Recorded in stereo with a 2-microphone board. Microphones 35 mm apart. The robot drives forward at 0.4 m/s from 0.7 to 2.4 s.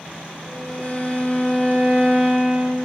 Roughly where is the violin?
Right.